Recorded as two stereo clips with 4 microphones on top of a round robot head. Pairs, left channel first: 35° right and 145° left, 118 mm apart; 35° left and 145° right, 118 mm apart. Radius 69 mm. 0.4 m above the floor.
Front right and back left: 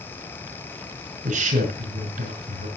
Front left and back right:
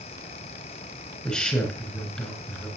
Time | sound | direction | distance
1.2 | a man speaking | 120° left | 5 m